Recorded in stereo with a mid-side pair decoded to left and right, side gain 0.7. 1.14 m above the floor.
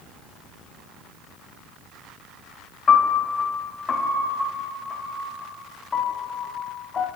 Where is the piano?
30° left, 2.5 m.